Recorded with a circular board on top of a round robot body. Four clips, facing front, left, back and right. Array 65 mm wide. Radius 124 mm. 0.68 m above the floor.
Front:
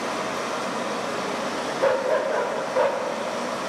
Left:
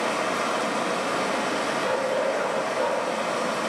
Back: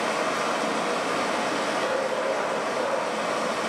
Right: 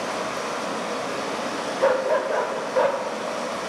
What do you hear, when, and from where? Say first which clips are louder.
0.0 s running water: left 2 dB, back 2 dB; 145° left, 1.5 m
1.8 s a dog barking: right 7 dB, front 4 dB; 55° right, 0.8 m